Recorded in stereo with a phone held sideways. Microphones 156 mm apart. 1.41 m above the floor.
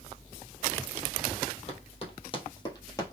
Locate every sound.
1.7 s running footsteps: 40° left (ahead or behind), 1.8 m; by 3.1 s 20° left (ahead or behind), 1.5 m